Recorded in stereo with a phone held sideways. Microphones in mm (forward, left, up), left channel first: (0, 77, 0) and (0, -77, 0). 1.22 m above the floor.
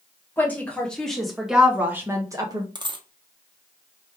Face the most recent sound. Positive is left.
turn(degrees=-30)  # may be behind; listen again after turning